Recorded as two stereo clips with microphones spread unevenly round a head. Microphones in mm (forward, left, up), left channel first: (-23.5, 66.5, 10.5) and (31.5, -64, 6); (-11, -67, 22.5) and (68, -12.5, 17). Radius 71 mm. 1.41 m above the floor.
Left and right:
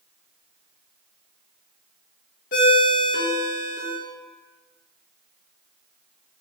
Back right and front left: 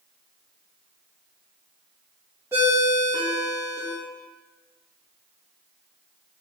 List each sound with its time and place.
2.5 s a ringtone: 105° left, 0.7 m